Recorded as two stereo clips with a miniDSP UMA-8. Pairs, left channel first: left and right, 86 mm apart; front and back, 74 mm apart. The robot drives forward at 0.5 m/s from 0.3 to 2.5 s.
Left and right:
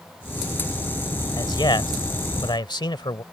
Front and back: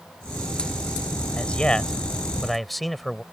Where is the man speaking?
70° left; by 3.2 s 90° left.